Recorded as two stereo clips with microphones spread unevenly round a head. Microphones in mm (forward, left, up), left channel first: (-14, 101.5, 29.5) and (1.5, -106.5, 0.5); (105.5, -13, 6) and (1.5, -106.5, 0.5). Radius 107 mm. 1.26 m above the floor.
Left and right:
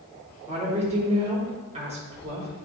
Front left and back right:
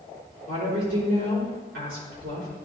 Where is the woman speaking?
145° right, 3 m.